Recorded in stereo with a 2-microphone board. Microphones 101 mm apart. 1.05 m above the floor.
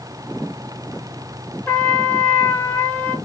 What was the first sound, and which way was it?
A trumpet, 20° left (ahead or behind).